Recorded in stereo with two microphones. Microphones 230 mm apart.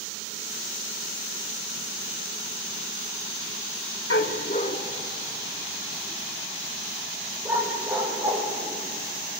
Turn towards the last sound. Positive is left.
turn(degrees=-15)  # may be behind; listen again after turning